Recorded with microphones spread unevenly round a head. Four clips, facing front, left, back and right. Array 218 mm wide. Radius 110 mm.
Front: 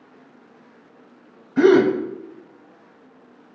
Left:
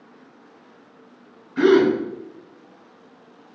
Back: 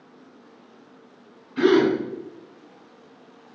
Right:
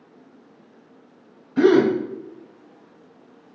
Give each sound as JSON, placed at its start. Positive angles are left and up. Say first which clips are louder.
{"t": 1.6, "sound": "a gasp", "louder": "even, front 4 dB", "azimuth_deg": -35, "distance_m": 1.2}